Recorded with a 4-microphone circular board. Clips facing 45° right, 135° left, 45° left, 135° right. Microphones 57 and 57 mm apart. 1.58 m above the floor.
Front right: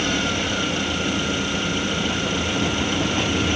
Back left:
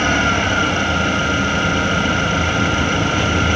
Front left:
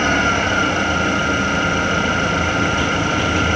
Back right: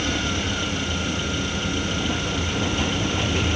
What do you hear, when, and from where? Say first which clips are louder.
0.0 s an engine running: back left 7 dB, front left 9 dB; 85° left